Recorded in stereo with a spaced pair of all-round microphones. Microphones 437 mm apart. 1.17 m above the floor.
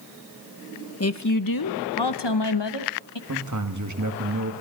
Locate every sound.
1.0 s a woman speaking: 35° left (ahead or behind), 0.7 m; by 3.2 s 80° left, 1.5 m
3.3 s a man speaking: 40° right (ahead or behind), 1.6 m